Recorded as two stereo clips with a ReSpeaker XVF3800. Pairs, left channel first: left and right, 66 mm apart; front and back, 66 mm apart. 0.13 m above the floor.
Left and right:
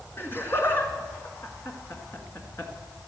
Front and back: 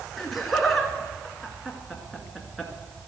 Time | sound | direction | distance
0.2 | laughter | 90° left | 1.4 m